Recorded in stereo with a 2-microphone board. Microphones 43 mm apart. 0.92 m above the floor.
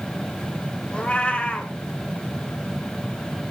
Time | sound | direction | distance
0.9 | a cat meowing | 30° left (ahead or behind) | 1.5 m